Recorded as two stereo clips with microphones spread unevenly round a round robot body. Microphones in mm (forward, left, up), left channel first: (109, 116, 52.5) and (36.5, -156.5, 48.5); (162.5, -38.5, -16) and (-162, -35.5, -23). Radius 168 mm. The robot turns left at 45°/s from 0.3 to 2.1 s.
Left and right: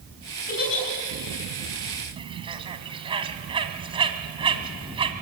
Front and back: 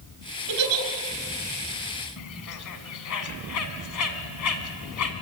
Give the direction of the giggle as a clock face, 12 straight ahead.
7 o'clock.